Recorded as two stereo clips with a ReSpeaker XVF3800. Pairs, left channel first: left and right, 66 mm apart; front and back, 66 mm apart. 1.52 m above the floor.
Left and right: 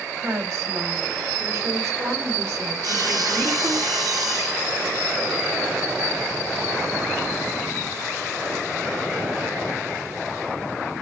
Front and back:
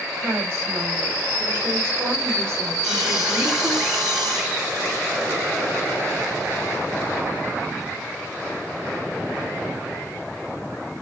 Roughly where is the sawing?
Right.